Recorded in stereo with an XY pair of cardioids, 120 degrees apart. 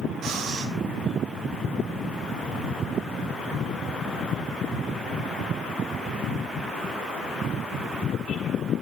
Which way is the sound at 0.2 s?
65° right.